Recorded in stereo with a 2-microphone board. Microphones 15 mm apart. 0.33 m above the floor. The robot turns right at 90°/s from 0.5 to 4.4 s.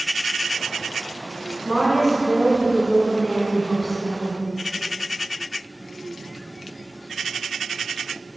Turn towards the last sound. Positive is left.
turn(degrees=30)  # may be behind; listen again after turning